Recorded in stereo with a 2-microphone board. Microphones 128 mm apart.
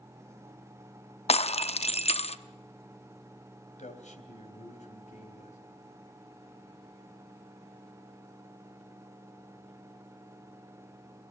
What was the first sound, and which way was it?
Breaking glass, 55° left (ahead or behind).